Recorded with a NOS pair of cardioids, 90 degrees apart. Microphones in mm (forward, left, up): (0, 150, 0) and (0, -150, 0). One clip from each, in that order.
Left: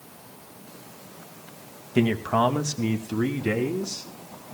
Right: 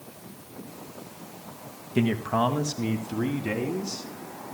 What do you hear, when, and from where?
1.9 s a man speaking: 20° left, 2.0 m; by 4.1 s 15° left, 3.5 m